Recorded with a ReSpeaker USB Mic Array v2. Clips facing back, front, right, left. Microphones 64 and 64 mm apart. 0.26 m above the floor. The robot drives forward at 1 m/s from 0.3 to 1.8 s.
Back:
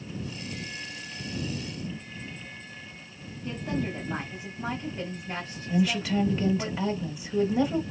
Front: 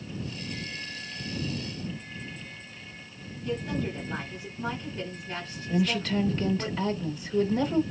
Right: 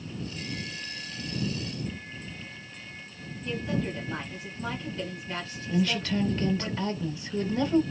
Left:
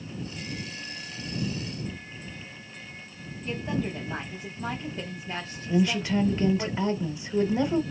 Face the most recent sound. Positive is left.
turn(degrees=115)